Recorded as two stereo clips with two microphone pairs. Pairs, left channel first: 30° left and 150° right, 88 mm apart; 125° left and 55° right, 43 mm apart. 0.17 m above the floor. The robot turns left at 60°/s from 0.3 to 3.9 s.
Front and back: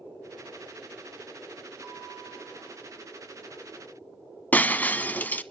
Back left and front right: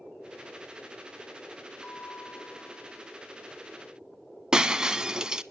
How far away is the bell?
About 4.5 m.